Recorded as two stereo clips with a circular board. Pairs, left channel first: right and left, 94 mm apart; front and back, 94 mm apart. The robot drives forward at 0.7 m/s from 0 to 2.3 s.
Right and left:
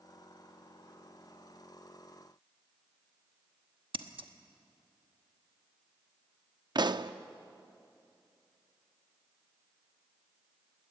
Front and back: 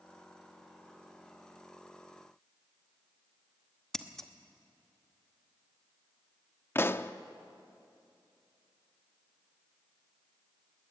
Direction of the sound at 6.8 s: 60° left.